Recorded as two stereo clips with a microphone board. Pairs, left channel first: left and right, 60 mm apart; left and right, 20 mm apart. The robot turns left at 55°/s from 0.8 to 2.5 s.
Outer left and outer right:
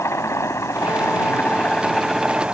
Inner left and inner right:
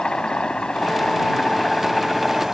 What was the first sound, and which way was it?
A helicopter, 55° left (ahead or behind).